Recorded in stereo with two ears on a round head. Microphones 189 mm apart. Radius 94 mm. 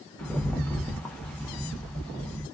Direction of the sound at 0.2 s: 5° left (ahead or behind).